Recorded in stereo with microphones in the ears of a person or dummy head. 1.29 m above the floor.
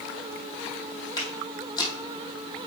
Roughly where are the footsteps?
Left.